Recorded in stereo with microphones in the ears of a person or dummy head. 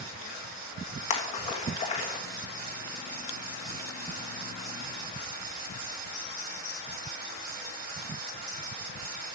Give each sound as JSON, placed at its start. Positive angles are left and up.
{"t": 1.1, "sound": "a splash", "side_deg": 35, "distance_m": 1.4}